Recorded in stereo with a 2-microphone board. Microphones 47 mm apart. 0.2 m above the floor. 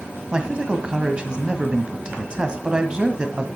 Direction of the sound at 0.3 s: 20° right (ahead or behind).